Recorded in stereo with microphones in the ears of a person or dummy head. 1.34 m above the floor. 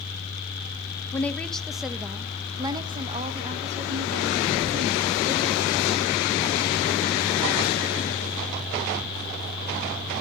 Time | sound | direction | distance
1.1 | a woman speaking | 10° left (ahead or behind) | 1.3 m